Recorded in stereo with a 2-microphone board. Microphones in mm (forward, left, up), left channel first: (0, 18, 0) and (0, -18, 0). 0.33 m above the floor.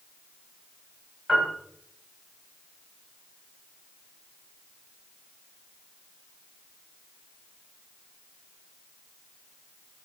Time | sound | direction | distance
1.3 | a piano | 5° left (ahead or behind) | 1.0 m